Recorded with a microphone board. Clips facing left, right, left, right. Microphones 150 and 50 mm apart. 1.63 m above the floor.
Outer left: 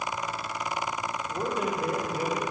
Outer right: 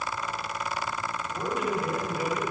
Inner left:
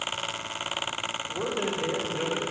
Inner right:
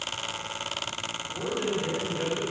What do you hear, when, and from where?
1.3 s a man speaking: 30° left (ahead or behind), 3 m; by 2.4 s 20° left (ahead or behind), 3 m